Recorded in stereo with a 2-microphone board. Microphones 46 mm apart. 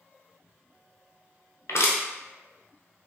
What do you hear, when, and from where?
1.7 s crushing: 75° left (ahead or behind), 0.9 m